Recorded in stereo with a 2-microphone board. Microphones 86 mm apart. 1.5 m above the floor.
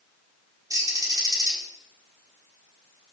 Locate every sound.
0.7 s a bird: 40° right (ahead or behind), 4 m